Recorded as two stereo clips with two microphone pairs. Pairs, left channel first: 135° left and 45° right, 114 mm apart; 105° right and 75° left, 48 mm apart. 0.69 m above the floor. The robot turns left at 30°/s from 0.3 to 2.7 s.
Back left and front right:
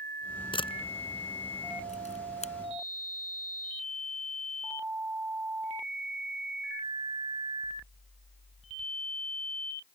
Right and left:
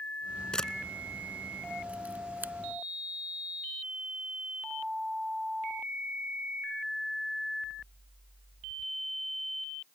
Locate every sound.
0.5 s a camera shutter: straight behind; by 2.5 s 120° left